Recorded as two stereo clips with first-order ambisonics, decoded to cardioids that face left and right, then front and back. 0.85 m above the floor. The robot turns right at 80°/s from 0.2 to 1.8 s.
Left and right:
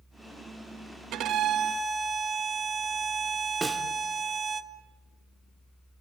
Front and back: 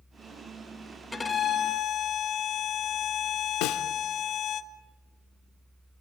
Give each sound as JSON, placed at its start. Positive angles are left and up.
{"t": 1.1, "sound": "a violin", "azimuth_deg": -75, "distance_m": 1.1}
{"t": 3.6, "sound": "a snare drum", "azimuth_deg": -10, "distance_m": 1.3}